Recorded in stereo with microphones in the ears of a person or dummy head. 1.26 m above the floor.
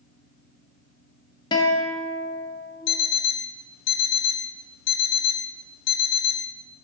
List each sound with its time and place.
1.5 s a guitar: 30° left (ahead or behind), 1.9 m
2.9 s an alarm clock: 60° left (ahead or behind), 1.1 m